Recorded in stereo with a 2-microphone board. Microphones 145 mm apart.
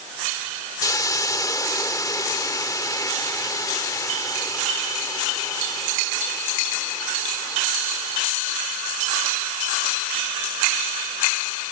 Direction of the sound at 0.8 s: 25° left (ahead or behind).